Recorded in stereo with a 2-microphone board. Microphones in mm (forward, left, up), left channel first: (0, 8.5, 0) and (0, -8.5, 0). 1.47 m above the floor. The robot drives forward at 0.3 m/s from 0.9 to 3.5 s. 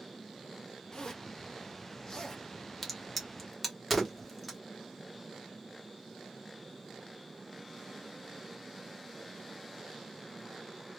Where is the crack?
5° left (ahead or behind), 1.1 m.